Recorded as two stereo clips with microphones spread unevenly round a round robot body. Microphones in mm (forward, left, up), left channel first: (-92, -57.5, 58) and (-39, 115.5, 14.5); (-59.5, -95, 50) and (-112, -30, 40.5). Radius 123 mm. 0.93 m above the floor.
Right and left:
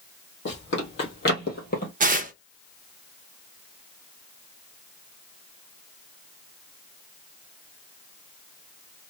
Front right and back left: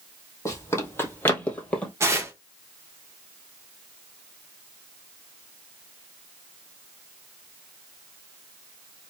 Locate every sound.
0.5 s running footsteps: 100° right, 2 m; by 1.9 s 120° right, 1.5 m
2.0 s tearing paper: 80° left, 0.6 m